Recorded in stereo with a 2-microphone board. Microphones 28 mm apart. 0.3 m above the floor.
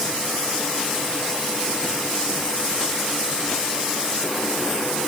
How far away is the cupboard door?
No cupboard door in this recording.